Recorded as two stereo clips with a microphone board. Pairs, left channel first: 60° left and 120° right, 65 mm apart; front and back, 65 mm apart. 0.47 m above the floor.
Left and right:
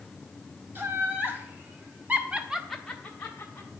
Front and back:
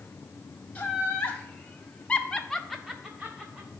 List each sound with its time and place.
0.8 s laughter: 65° right, 2 m; by 3.7 s 115° left, 1.3 m